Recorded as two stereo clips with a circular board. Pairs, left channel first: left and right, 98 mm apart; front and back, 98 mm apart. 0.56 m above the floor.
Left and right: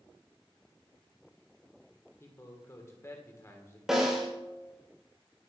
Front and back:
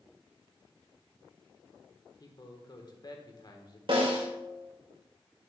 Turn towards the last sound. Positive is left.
turn(degrees=-175)